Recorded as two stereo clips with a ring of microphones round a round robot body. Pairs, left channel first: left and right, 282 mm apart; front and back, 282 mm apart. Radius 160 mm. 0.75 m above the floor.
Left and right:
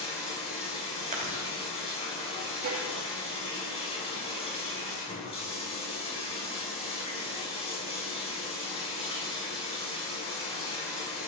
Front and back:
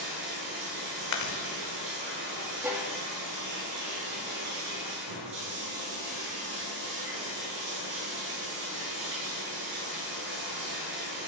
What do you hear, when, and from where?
0.0 s running water: 160° left, 5 m
1.1 s chewing: 20° right, 1.6 m
2.6 s a violin: 100° right, 1.8 m